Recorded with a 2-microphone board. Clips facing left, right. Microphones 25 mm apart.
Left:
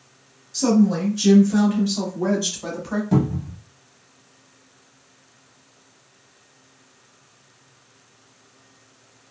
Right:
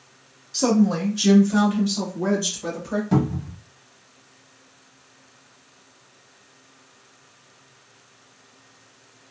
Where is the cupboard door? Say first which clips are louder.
Left 2 dB; 15° right (ahead or behind), 0.9 m.